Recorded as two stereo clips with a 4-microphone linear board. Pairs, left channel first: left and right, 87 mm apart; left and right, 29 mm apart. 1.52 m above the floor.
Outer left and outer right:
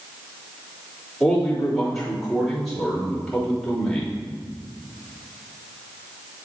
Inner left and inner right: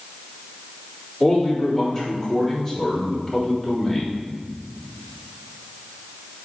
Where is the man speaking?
5° left (ahead or behind), 3.5 m.